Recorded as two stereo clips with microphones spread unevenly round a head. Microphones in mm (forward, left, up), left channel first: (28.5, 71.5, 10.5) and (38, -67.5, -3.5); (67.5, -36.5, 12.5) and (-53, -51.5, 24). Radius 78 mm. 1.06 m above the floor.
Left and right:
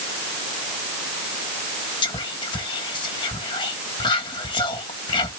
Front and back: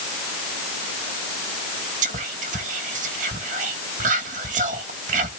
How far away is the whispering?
About 1.5 m.